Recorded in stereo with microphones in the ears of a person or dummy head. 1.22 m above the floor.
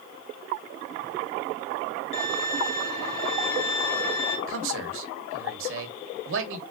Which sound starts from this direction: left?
A violin, at 2.1 s.